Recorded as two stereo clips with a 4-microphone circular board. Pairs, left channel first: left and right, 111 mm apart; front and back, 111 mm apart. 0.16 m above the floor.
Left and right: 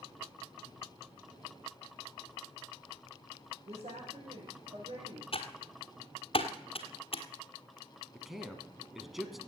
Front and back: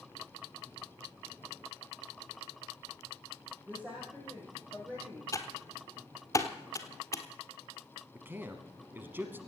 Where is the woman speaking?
100° right, 6 m; by 5.2 s 105° right, 5.5 m.